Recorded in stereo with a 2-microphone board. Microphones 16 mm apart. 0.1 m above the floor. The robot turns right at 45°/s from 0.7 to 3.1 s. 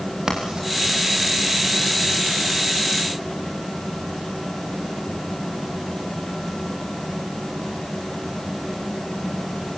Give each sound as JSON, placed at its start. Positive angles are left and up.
{"t": 0.3, "sound": "writing", "side_deg": -50, "distance_m": 6.0}